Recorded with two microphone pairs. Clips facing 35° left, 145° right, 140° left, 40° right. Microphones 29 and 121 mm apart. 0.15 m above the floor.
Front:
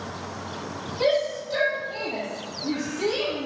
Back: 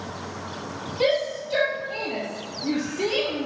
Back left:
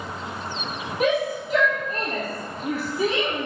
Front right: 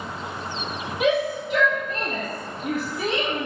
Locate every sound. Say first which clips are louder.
1.0 s a shout: even, front right 1 dB; 175° right, 4.5 m; by 3.5 s 150° right, 4 m